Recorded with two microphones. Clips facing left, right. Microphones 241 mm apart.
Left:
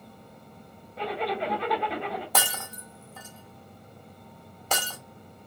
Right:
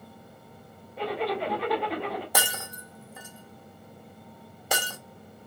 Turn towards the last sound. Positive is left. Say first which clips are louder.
# even
turn(degrees=-10)  # may be behind; listen again after turning